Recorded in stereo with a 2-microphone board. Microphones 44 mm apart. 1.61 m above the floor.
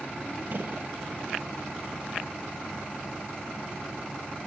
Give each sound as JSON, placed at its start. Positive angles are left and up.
{"t": 0.5, "sound": "a gunshot", "side_deg": -45, "distance_m": 0.5}